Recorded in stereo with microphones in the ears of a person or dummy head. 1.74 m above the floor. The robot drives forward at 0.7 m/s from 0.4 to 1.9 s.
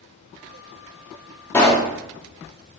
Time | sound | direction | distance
1.5 | a pop | 10° left (ahead or behind) | 0.6 m